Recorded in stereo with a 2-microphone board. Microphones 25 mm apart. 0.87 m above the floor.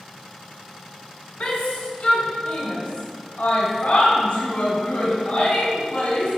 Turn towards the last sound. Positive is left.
turn(degrees=85)